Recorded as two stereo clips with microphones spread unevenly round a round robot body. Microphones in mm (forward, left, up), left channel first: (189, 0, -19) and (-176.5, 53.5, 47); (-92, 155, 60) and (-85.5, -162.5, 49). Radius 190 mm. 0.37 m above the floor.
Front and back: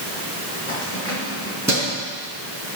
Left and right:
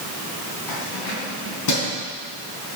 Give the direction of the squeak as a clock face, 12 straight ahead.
No squeak in this recording.